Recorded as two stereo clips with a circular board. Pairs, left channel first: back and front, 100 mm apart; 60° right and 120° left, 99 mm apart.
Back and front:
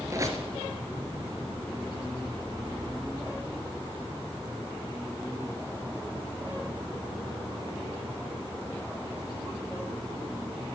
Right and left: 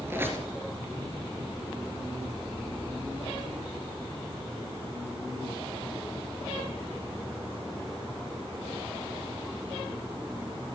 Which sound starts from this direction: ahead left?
A squeak, at 0.1 s.